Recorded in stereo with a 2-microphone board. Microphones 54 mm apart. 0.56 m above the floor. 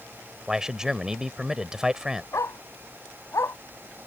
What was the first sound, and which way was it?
A man speaking, 10° right (ahead or behind).